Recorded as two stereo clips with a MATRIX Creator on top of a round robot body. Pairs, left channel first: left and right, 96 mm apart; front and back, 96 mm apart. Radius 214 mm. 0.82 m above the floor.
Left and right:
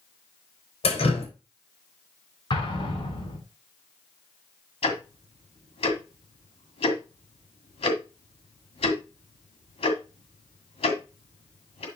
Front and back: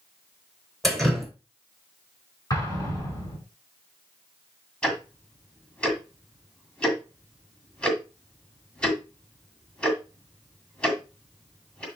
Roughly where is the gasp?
No gasp in this recording.